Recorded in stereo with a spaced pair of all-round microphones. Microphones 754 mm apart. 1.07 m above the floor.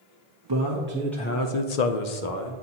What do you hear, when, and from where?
0.5 s a man speaking: 30° right (ahead or behind), 0.9 m; by 2.5 s 75° left (ahead or behind), 1.2 m